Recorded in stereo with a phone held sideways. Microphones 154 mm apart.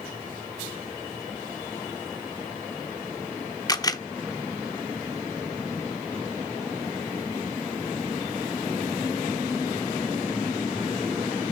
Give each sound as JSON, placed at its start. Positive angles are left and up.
{"t": 3.7, "sound": "a camera shutter", "side_deg": 25, "distance_m": 0.8}